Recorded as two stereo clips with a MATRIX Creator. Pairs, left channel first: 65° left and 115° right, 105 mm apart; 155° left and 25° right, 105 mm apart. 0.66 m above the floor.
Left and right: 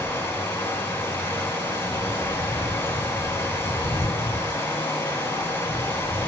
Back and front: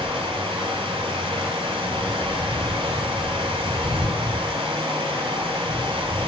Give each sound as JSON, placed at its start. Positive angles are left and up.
{"t": 0.0, "sound": "running water", "azimuth_deg": 0, "distance_m": 1.3}